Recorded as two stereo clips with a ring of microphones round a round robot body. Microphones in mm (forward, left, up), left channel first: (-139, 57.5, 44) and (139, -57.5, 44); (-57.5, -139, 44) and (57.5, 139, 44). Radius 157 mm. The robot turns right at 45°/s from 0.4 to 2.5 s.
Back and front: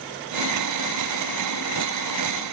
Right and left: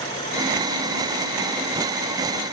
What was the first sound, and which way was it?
Only background noise.